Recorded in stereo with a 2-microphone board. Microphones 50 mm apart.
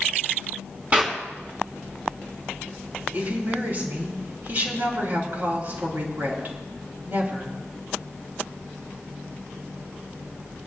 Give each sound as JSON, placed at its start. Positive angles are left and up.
{"t": 0.9, "sound": "a clap", "side_deg": -30, "distance_m": 4.0}
{"t": 3.1, "sound": "a woman speaking", "side_deg": -40, "distance_m": 4.5}